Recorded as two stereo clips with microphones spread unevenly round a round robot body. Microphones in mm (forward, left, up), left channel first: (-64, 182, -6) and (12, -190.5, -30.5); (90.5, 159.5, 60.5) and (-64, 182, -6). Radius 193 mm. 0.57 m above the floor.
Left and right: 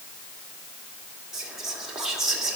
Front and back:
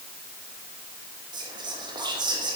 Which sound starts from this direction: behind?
Whispering, at 1.3 s.